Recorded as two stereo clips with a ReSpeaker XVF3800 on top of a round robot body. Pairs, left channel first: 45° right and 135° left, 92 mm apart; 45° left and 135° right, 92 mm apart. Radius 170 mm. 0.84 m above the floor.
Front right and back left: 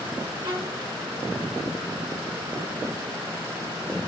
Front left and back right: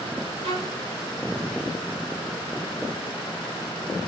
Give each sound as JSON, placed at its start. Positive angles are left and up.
{"t": 0.4, "sound": "a violin", "azimuth_deg": -170, "distance_m": 4.0}